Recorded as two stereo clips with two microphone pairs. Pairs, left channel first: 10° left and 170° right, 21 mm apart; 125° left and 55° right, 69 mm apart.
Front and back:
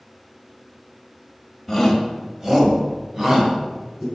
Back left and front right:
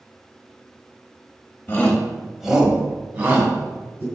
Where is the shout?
115° left, 1.2 m; by 4.0 s 115° right, 3 m.